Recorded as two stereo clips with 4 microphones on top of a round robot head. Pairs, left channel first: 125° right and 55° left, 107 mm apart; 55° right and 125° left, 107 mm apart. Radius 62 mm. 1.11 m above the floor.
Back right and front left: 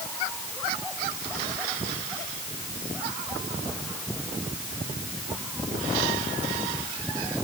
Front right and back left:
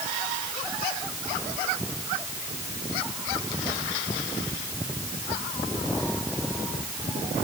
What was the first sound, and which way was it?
Only background noise.